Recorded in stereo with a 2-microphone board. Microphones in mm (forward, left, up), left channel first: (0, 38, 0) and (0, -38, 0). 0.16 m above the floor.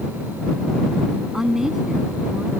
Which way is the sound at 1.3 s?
5° right (ahead or behind).